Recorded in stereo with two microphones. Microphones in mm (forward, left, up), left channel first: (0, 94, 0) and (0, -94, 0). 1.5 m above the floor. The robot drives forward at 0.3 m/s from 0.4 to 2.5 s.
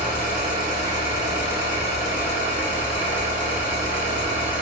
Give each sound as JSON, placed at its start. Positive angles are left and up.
{"t": 0.0, "sound": "an engine running", "side_deg": 40, "distance_m": 1.7}